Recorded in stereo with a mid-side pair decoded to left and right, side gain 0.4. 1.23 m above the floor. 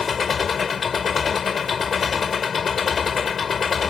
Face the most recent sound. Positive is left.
turn(degrees=50)